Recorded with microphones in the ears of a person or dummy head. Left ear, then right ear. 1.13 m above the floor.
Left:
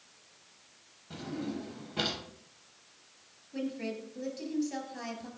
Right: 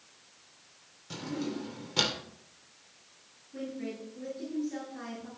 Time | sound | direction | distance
1.1 | a drawer | 75° right (ahead or behind) | 2.5 m
3.5 | a woman speaking | 40° left (ahead or behind) | 7.5 m